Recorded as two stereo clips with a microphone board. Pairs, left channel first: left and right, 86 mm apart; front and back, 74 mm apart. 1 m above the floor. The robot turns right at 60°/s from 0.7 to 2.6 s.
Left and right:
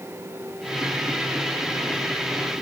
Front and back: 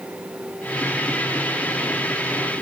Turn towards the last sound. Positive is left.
No sound to turn to.